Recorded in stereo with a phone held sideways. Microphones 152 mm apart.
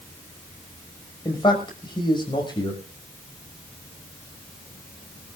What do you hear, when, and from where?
1.2 s a man speaking: 30° left (ahead or behind), 5.5 m